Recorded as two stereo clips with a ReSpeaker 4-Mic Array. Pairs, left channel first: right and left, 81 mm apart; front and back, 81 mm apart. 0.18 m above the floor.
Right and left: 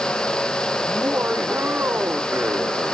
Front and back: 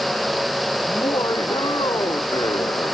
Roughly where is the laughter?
Ahead left.